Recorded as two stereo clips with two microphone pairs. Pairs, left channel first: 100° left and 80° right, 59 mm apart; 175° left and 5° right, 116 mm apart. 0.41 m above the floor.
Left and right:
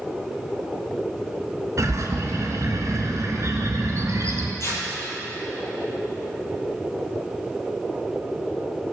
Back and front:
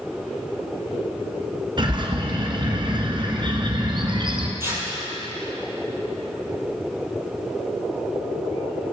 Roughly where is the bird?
Ahead right.